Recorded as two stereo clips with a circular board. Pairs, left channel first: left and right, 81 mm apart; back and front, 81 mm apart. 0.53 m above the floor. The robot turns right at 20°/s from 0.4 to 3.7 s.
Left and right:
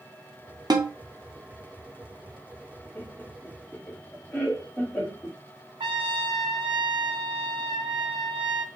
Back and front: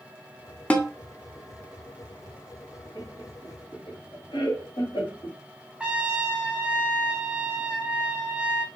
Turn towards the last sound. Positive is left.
turn(degrees=-80)